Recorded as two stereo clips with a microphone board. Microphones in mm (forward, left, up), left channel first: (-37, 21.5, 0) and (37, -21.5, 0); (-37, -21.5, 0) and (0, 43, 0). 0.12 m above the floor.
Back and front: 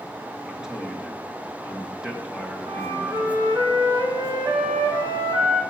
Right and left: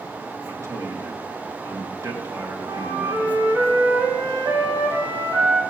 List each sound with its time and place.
0.5 s a man speaking: 45° left, 2 m
2.6 s a flute: 5° left, 3.5 m